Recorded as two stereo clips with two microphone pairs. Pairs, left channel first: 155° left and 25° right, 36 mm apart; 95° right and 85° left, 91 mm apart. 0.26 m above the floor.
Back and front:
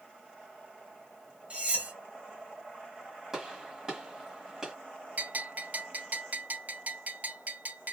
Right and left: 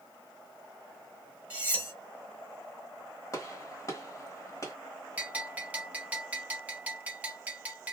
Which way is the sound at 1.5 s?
15° left.